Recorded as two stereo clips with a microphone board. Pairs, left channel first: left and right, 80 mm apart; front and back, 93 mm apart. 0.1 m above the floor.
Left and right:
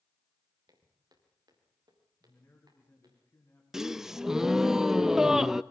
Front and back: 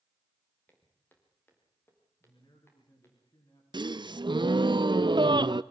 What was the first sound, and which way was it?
Footsteps, 65° right.